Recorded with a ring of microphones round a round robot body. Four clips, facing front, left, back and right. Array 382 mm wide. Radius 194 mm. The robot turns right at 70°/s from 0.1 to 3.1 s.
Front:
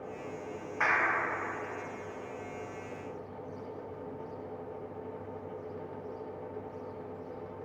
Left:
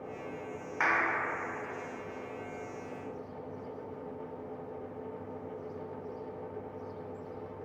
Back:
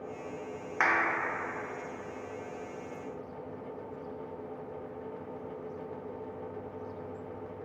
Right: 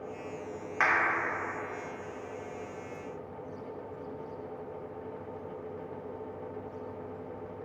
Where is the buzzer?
No buzzer in this recording.